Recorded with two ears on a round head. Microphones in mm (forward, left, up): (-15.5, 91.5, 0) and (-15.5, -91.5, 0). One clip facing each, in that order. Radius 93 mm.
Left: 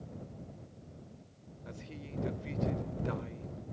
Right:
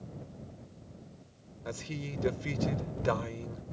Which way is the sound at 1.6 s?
85° right.